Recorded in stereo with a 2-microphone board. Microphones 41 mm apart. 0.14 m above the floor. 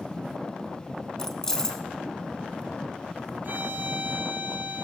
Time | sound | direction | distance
1.2 | keys jangling | 10° left (ahead or behind) | 0.8 m
3.4 | a violin | 50° right (ahead or behind) | 1.2 m